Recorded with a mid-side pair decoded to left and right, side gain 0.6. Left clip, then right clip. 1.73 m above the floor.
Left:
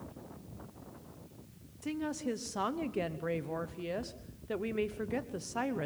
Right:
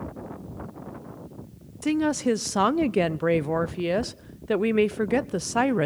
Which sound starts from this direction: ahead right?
A woman speaking, at 1.8 s.